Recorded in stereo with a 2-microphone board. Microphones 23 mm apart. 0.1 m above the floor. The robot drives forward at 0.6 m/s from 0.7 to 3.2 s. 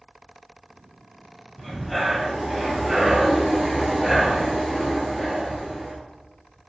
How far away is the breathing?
About 2.5 m.